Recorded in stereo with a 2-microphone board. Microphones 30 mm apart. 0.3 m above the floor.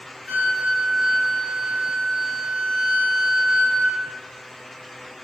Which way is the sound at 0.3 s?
10° left (ahead or behind).